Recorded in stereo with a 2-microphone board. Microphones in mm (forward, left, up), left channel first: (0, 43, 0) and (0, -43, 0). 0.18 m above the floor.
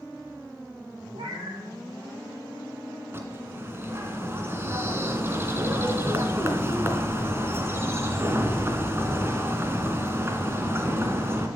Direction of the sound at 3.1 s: 30° right (ahead or behind).